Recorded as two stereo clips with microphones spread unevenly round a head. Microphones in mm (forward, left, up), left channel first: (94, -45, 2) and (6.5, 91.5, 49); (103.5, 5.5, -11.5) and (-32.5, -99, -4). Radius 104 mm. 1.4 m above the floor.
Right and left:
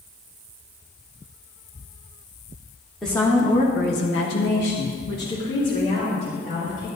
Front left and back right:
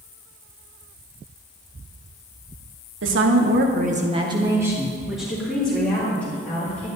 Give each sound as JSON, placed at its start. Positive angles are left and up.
{"t": 3.0, "sound": "a woman speaking", "azimuth_deg": -145, "distance_m": 1.8}